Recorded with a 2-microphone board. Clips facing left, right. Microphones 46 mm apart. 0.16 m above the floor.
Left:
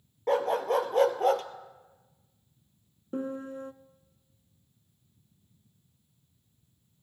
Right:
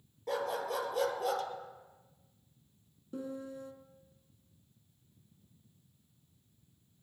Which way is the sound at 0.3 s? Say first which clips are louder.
Left 9 dB; 45° left (ahead or behind).